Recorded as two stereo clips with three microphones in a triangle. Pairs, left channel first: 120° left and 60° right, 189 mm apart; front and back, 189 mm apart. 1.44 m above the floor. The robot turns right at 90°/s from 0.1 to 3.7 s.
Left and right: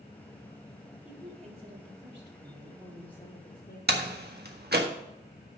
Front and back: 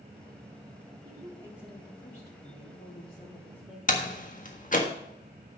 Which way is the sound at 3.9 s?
40° right.